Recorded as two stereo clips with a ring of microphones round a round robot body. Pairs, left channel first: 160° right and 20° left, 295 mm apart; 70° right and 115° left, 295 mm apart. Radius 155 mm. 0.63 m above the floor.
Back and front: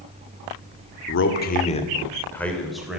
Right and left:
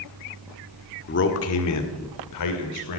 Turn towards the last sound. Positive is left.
turn(degrees=-65)